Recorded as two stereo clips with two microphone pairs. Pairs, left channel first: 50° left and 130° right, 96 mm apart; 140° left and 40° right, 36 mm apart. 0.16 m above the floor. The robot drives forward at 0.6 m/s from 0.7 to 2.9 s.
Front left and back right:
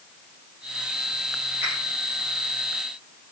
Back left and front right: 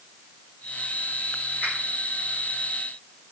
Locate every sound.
1.6 s a finger snap: 165° left, 4.5 m